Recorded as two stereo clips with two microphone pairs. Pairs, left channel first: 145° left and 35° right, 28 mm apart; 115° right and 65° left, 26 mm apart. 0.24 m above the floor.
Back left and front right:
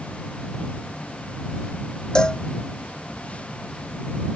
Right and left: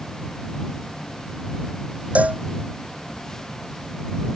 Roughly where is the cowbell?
Left.